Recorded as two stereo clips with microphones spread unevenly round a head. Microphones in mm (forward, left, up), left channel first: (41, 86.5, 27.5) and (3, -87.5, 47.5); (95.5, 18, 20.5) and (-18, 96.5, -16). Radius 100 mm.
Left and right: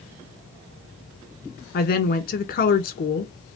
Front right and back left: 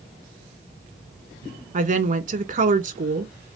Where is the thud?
I don't hear a thud.